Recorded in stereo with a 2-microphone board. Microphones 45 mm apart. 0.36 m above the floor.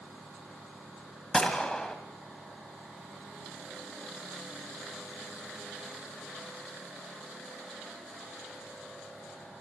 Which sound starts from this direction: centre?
A gunshot, at 1.3 s.